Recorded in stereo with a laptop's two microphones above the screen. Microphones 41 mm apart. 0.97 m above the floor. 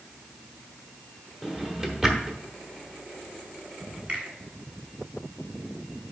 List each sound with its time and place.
1.4 s a drawer: 15° right (ahead or behind), 0.9 m
4.1 s a finger snap: 30° right (ahead or behind), 1.6 m